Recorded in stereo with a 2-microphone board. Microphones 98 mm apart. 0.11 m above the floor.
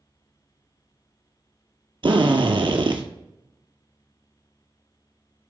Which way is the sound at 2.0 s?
60° right (ahead or behind).